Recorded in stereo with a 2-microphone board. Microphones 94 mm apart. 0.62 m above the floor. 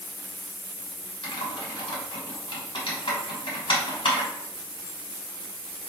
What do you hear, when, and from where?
1.2 s typing on a keyboard: 75° left (ahead or behind), 1.5 m